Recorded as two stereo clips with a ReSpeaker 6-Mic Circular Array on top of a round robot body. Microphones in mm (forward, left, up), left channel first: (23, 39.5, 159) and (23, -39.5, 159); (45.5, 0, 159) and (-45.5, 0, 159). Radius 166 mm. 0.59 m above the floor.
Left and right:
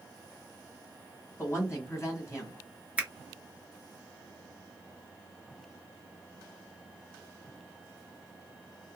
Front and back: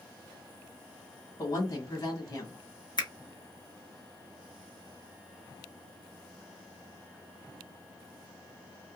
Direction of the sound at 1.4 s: 40° left.